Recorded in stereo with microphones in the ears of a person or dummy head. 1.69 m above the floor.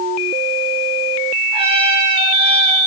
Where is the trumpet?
35° right (ahead or behind), 9.5 m.